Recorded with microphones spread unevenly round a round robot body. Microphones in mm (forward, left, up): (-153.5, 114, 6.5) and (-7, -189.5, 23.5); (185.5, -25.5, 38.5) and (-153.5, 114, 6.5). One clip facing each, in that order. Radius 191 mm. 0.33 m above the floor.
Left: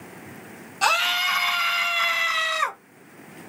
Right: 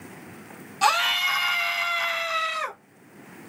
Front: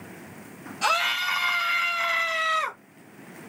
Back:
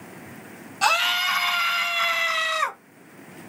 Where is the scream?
140° right, 1.6 m; by 2.8 s 155° left, 1.3 m.